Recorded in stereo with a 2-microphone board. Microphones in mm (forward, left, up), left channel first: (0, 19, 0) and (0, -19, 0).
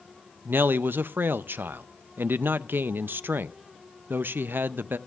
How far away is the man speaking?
About 0.6 m.